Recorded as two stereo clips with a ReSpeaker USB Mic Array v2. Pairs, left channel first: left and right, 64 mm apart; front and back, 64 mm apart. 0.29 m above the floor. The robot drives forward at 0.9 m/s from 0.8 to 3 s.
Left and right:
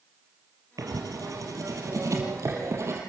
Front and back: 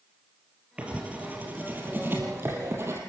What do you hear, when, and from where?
0.8 s writing: 110° right, 3.5 m; by 3.0 s 135° right, 4.5 m